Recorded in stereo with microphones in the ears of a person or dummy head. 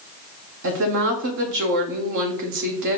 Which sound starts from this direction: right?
A woman speaking, at 0.6 s.